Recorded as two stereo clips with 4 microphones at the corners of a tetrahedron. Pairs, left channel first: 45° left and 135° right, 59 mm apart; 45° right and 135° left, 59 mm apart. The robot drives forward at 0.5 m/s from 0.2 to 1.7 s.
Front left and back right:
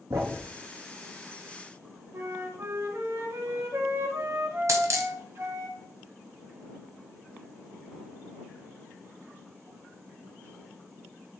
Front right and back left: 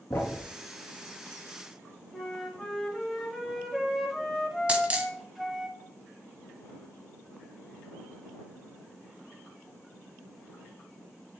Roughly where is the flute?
Behind right.